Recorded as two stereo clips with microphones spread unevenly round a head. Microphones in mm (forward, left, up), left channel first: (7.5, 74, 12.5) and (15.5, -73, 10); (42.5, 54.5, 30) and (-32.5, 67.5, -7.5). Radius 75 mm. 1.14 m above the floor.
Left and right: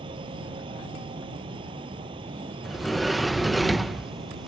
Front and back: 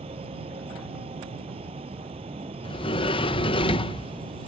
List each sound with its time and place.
0.0 s a fan: 150° right
2.6 s a sliding door: 5° left